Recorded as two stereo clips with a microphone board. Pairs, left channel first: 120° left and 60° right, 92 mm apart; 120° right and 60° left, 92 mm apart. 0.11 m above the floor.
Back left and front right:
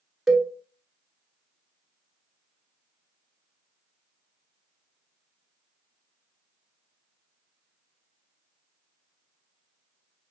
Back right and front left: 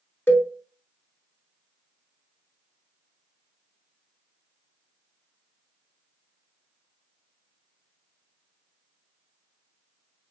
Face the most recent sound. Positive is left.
turn(degrees=-150)